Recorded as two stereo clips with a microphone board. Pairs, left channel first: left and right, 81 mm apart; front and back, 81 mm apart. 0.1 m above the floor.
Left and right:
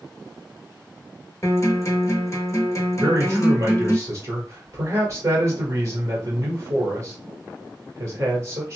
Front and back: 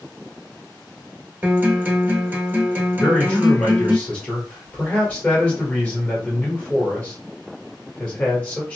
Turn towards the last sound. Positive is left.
turn(degrees=-65)